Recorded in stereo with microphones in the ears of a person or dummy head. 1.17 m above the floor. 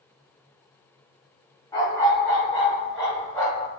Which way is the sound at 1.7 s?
15° left (ahead or behind).